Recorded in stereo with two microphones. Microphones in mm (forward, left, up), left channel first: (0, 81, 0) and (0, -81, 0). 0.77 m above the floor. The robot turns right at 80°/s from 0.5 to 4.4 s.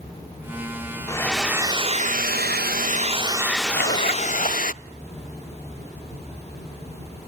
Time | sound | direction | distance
1.1 | a hair dryer | 155° left | 0.6 m
3.7 | a zipper | 85° left | 2 m